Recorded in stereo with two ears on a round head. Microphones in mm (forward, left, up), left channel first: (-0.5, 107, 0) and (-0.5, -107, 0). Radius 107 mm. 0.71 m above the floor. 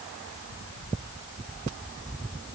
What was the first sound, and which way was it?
Only background noise.